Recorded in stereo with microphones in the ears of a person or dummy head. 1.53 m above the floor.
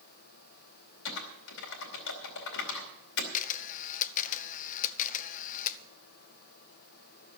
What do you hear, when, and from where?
1.1 s typing on a keyboard: 65° left (ahead or behind), 2.5 m
3.3 s a camera shutter: 45° left (ahead or behind), 0.7 m